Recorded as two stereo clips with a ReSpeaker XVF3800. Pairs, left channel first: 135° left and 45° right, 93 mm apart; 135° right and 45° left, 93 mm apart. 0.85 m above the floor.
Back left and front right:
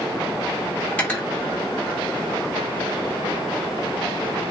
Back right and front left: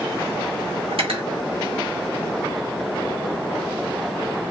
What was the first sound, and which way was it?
Cutlery clinking, 60° left.